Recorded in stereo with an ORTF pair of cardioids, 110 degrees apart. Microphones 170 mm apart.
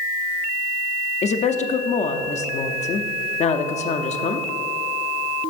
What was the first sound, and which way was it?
A woman speaking, 40° left.